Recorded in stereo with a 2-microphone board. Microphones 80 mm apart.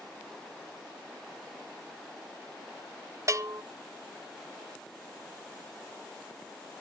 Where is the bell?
40° right (ahead or behind), 0.5 m.